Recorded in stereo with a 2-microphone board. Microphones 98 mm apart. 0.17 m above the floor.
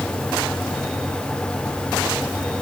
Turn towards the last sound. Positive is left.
No sound to turn to.